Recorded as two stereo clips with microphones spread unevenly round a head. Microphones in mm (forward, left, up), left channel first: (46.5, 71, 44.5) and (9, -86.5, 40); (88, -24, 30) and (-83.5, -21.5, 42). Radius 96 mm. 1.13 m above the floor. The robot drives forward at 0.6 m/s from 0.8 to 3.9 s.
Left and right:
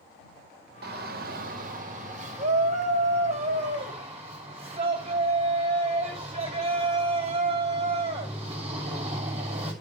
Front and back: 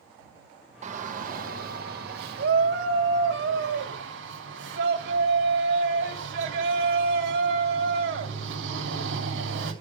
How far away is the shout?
About 1.1 m.